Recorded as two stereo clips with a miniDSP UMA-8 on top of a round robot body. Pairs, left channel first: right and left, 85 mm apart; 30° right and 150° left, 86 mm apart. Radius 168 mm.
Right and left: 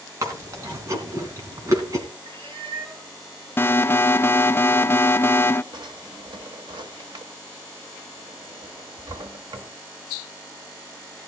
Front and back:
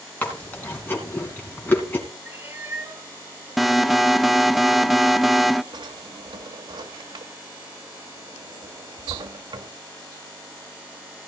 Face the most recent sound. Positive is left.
turn(degrees=120)